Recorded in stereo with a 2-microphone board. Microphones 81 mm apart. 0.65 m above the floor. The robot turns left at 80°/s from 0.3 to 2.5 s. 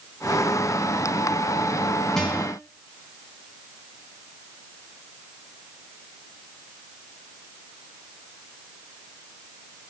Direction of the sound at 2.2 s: 5° left (ahead or behind).